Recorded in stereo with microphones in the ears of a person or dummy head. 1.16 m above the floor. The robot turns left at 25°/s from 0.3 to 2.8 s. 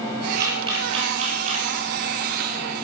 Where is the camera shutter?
20° right (ahead or behind), 3.5 m; by 1.7 s 50° right (ahead or behind), 3.5 m.